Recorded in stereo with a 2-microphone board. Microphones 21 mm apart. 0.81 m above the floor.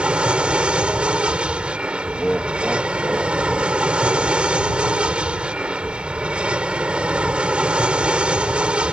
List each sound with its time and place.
0.0 s an aircraft: 60° right (ahead or behind)
2.1 s laughter: 10° right (ahead or behind)